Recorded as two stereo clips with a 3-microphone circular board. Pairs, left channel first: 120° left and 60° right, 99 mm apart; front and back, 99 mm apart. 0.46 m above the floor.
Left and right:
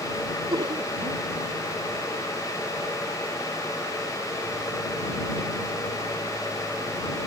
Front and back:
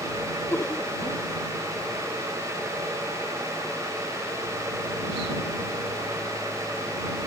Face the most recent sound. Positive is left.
turn(degrees=-60)